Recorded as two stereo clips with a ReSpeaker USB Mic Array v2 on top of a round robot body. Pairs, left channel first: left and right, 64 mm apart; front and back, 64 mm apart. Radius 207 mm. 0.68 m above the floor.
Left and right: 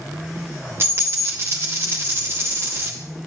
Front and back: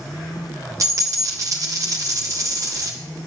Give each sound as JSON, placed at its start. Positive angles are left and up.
{"t": 0.8, "sound": "a dropped coin", "azimuth_deg": -145, "distance_m": 0.8}